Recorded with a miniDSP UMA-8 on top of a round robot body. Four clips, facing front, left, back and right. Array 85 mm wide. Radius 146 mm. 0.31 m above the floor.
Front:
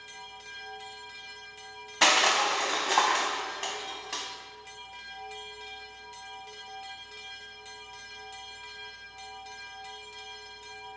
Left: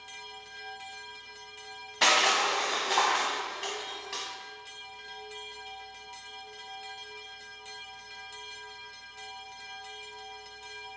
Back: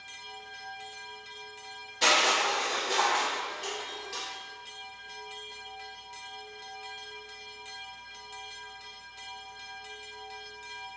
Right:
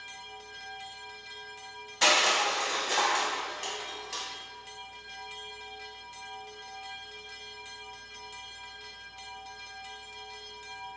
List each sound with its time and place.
2.0 s crushing: 20° left, 0.5 m